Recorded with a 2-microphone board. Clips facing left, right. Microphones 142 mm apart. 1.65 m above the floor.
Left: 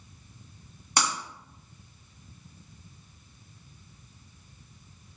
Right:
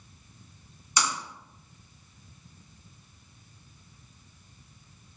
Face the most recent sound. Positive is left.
turn(degrees=60)  # may be behind; listen again after turning